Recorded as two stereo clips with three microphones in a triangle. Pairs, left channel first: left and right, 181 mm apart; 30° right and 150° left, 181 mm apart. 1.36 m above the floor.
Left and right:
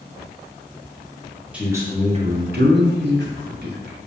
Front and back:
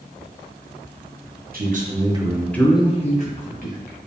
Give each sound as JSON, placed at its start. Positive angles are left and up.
{"t": 1.5, "sound": "a man speaking", "azimuth_deg": -175, "distance_m": 1.0}